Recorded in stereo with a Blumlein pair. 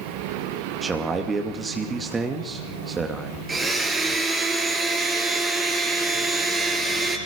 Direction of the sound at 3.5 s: 10° right.